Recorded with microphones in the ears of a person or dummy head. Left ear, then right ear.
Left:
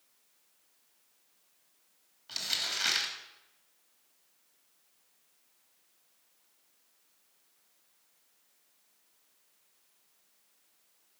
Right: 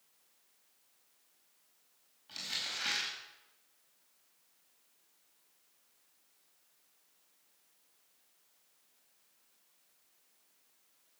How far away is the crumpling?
About 4 m.